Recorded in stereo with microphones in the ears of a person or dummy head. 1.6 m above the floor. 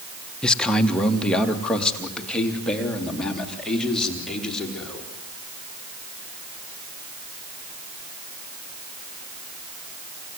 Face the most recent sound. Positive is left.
turn(degrees=5)  # may be behind; listen again after turning